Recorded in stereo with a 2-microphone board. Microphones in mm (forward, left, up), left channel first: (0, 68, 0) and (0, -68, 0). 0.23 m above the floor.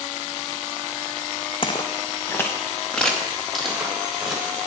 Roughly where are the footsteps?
Left.